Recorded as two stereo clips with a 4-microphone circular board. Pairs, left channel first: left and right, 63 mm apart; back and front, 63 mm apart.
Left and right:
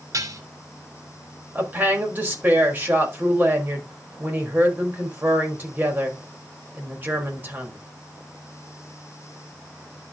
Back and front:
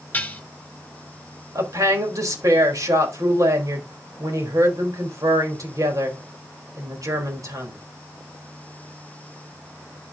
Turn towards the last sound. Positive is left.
turn(degrees=-30)